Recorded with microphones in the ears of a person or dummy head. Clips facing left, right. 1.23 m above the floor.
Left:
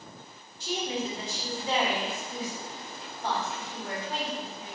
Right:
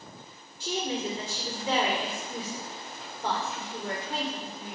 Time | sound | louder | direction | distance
0.6 | a woman speaking | right 1 dB | 60° right (ahead or behind) | 1.8 m